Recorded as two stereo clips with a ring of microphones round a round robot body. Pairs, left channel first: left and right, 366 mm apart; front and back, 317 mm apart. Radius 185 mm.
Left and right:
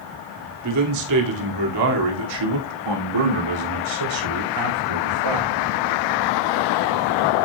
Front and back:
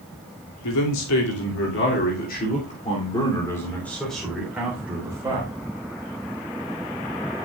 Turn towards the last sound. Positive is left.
turn(degrees=-100)